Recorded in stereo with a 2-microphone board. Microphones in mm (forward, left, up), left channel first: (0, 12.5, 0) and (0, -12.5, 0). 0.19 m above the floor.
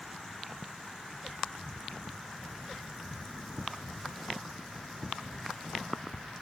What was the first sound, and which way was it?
Only background noise.